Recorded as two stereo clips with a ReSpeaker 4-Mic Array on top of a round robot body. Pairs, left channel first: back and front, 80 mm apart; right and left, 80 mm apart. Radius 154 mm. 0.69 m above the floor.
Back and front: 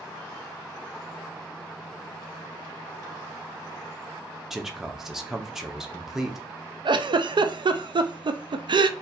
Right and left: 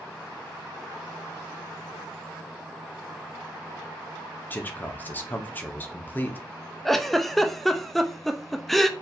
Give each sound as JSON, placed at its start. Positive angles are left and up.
{"t": 4.5, "sound": "a man speaking", "azimuth_deg": -80, "distance_m": 1.0}
{"t": 6.8, "sound": "a giggle", "azimuth_deg": 0, "distance_m": 0.6}